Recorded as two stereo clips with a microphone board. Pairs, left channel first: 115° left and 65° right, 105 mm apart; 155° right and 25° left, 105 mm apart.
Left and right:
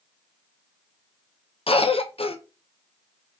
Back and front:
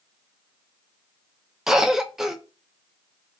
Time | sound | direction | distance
1.7 | a cough | 105° left | 0.5 m